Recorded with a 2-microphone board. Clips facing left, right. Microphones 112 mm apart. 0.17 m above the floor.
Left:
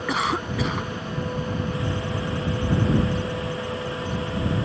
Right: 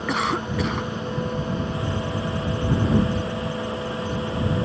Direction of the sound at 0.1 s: Centre (ahead or behind).